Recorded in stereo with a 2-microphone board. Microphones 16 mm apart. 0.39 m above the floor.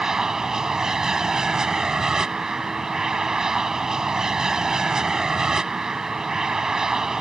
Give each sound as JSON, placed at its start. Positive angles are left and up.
{"t": 0.0, "sound": "an aircraft", "side_deg": -35}